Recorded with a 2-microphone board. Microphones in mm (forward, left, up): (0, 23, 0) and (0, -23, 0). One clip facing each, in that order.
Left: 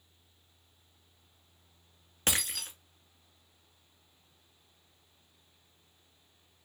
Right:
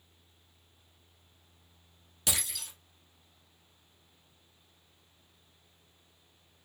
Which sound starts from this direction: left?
Breaking glass, at 2.3 s.